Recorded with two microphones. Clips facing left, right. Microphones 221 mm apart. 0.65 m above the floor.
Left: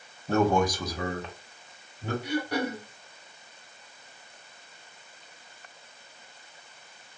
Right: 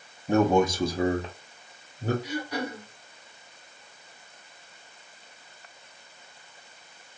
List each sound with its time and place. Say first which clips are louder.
0.3 s a man speaking: right 2 dB; 15° right (ahead or behind), 0.7 m; by 2.1 s 40° right (ahead or behind), 1.1 m
2.2 s throat clearing: left 3 dB; 60° left (ahead or behind), 0.9 m